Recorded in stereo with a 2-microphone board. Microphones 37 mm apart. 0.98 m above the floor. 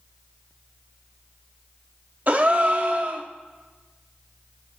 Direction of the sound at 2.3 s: 50° right (ahead or behind).